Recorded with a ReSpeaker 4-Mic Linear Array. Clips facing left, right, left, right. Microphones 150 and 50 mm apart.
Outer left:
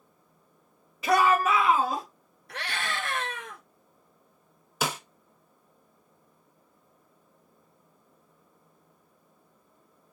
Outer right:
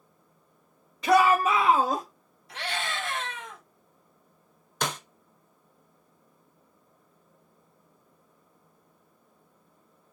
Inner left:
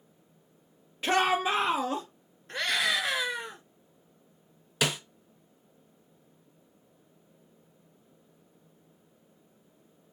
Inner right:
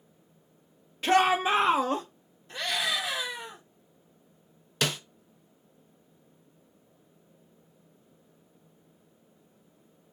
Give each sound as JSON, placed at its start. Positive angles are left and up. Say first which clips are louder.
{"t": 1.0, "sound": "a shout", "louder": "outer right 2 dB, inner right 3 dB", "side_deg": 5, "distance_m": 0.8}
{"t": 2.5, "sound": "a scream", "louder": "outer right 1 dB, inner left 2 dB", "side_deg": 50, "distance_m": 2.5}
{"t": 4.8, "sound": "a snare drum", "louder": "outer left 1 dB, inner left 1 dB", "side_deg": 5, "distance_m": 0.5}